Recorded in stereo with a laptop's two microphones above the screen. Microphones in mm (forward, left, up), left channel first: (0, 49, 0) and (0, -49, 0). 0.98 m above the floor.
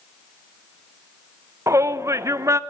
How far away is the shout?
About 0.5 m.